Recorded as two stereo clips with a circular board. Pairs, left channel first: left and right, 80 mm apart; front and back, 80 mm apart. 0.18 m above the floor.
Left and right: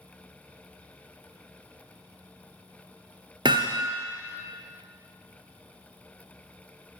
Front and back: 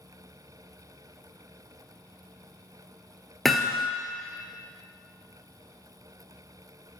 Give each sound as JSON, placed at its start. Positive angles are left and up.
{"t": 3.5, "sound": "hammering", "azimuth_deg": -90, "distance_m": 1.0}